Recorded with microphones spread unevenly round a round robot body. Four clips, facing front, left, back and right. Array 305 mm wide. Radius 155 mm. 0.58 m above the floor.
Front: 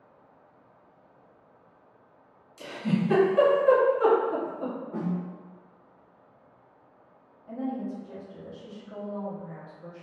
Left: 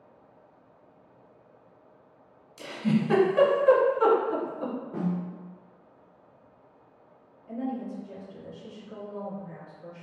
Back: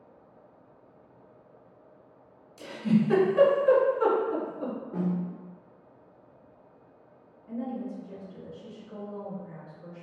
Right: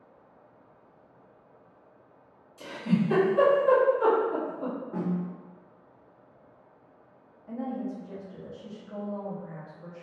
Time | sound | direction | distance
2.6 | a giggle | 110° left | 1.0 m
4.9 | a snare drum | 85° right | 1.5 m
7.5 | a woman speaking | 85° right | 0.8 m